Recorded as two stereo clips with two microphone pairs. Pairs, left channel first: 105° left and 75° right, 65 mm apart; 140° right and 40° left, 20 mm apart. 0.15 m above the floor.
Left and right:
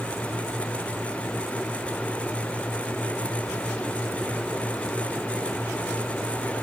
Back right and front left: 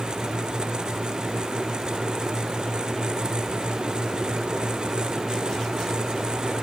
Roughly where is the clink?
I don't hear a clink.